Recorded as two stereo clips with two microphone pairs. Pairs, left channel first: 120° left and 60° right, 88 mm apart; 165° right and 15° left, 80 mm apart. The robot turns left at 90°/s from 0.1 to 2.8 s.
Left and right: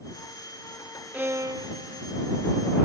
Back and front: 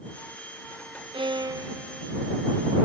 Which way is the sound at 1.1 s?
10° left.